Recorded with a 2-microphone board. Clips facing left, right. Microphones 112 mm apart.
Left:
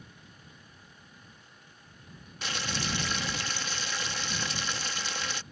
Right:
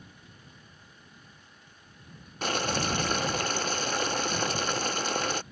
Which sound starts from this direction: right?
Boiling, at 2.4 s.